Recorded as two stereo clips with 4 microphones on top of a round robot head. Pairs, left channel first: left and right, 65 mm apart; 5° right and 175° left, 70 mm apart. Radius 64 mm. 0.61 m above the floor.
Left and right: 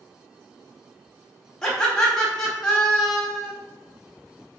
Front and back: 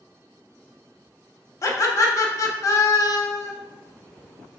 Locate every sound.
1.6 s laughter: 10° left, 1.1 m